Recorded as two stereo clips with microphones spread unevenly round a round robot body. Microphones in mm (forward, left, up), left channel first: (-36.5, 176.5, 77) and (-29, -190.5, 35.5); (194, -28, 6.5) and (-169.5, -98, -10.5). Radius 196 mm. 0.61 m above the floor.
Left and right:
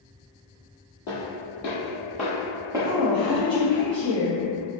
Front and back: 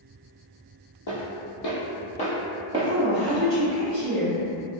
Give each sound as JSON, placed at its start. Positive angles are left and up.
{"t": 1.1, "sound": "footsteps", "azimuth_deg": 50, "distance_m": 1.2}
{"t": 2.8, "sound": "a woman speaking", "azimuth_deg": 170, "distance_m": 1.4}